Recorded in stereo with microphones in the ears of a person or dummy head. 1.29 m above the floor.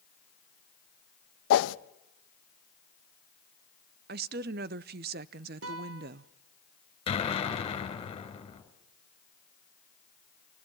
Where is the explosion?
30° left (ahead or behind), 3 m.